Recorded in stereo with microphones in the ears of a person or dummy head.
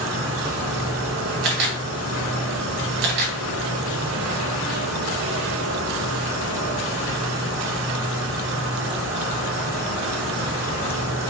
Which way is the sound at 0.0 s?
85° right.